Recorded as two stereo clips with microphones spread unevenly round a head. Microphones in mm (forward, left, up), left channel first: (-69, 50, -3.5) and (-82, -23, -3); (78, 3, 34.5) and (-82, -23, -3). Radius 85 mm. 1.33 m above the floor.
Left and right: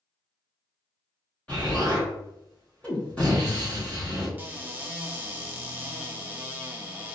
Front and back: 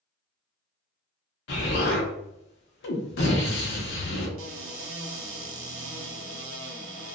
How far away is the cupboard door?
About 0.8 m.